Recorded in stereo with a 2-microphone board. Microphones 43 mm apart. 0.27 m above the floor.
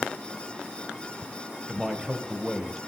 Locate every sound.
1.7 s a man speaking: 10° right (ahead or behind), 1.2 m